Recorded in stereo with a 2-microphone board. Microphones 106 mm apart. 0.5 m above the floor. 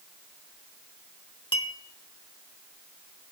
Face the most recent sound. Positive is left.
turn(degrees=50)  # may be behind; listen again after turning